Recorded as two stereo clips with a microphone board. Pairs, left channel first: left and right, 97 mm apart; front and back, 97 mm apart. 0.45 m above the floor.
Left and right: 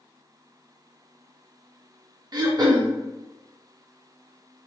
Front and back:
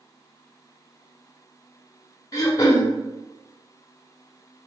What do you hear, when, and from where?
2.3 s throat clearing: 50° right, 0.5 m